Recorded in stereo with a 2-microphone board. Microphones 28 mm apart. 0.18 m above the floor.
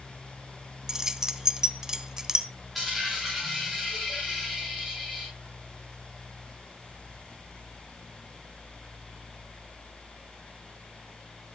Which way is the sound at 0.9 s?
20° right (ahead or behind).